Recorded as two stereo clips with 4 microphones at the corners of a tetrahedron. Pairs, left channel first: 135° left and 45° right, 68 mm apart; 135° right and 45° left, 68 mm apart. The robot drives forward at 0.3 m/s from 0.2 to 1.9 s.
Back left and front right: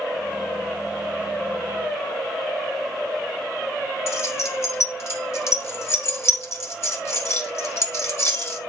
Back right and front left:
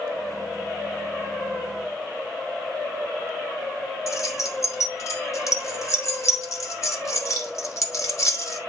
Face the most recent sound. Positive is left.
turn(degrees=-175)